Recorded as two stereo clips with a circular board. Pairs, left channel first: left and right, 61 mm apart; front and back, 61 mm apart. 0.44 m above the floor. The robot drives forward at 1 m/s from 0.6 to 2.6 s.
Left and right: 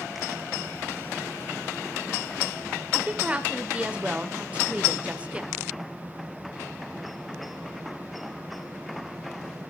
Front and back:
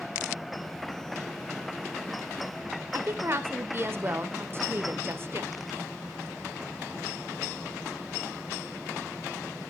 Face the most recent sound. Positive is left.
turn(degrees=-155)